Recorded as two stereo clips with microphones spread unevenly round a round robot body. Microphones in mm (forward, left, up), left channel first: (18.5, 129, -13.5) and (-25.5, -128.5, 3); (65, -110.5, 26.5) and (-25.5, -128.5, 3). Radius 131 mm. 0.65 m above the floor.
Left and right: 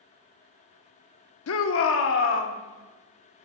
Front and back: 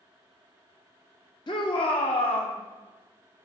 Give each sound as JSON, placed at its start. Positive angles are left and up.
{"t": 1.5, "sound": "a shout", "azimuth_deg": 65, "distance_m": 0.9}